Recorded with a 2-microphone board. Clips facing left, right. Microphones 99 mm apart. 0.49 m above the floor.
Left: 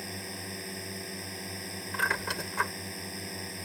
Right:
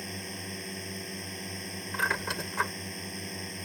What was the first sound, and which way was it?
A drone, 5° left (ahead or behind).